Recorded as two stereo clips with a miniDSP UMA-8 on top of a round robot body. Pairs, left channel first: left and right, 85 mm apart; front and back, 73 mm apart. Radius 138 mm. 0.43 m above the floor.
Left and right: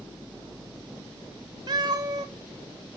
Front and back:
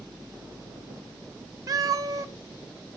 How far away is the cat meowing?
About 0.6 m.